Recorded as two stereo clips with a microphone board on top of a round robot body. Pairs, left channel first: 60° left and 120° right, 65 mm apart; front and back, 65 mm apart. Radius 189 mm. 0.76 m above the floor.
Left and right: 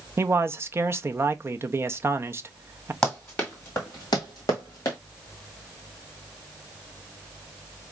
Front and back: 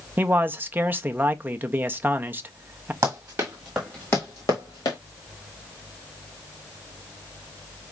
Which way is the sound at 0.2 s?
135° right.